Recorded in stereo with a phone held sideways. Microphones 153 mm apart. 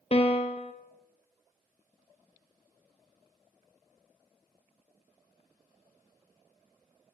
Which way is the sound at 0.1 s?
40° left (ahead or behind).